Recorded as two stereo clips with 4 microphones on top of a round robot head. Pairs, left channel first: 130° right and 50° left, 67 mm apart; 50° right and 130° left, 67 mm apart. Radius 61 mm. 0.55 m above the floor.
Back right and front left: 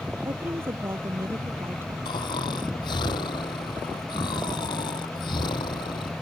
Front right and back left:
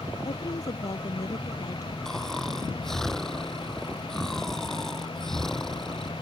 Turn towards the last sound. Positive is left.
turn(degrees=-130)